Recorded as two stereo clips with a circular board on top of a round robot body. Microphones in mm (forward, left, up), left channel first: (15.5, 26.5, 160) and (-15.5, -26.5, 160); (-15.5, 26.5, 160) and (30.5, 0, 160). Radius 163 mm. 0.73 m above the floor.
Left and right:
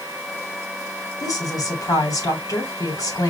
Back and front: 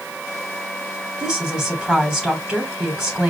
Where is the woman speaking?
50° left, 3 m.